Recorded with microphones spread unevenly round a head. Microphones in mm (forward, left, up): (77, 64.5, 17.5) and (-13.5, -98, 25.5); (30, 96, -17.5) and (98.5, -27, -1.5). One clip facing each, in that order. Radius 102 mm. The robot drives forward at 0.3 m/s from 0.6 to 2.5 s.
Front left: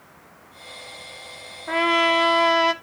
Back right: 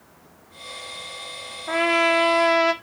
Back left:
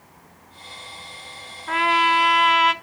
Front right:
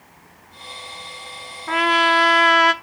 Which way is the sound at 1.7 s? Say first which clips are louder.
Back right 1 dB, front right 1 dB; 25° right.